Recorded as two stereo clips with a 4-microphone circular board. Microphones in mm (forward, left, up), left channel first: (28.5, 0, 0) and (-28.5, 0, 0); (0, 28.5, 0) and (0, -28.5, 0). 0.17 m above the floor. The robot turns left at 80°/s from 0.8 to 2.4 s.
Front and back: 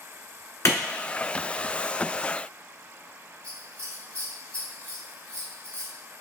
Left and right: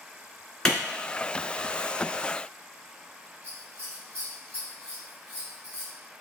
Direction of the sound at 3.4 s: 135° right.